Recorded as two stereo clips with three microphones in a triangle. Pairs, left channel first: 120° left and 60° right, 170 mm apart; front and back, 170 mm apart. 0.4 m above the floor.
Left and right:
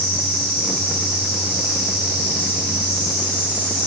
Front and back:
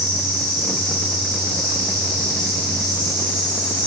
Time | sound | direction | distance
0.0 | an insect | 5° left | 1.5 m